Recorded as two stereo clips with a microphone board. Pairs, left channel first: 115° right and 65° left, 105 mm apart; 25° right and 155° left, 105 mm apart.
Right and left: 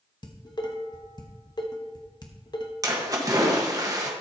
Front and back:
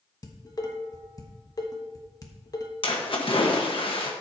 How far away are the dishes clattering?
About 1.1 m.